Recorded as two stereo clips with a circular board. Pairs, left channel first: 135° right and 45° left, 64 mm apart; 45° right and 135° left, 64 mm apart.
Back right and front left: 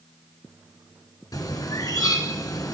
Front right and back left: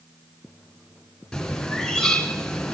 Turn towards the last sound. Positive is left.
turn(degrees=-125)